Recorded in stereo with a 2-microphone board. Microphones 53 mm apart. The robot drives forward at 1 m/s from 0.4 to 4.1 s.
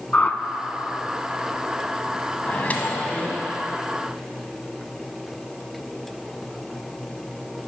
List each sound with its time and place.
0.1 s a whoosh: 25° left (ahead or behind), 0.5 m
2.5 s a microwave: 30° left (ahead or behind), 0.9 m; by 3.5 s 20° left (ahead or behind), 1.4 m